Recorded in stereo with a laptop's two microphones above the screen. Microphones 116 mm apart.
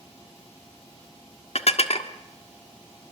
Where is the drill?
I don't hear a drill.